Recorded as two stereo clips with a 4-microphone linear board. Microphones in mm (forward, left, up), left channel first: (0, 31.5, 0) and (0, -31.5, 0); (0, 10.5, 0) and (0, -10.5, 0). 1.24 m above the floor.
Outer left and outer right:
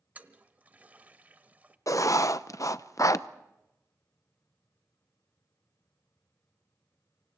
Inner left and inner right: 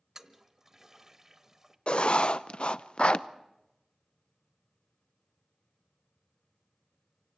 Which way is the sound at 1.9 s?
60° left (ahead or behind).